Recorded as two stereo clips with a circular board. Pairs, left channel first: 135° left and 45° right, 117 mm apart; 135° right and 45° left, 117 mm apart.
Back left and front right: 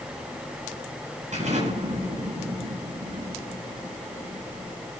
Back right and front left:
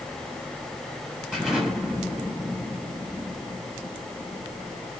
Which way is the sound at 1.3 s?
40° right.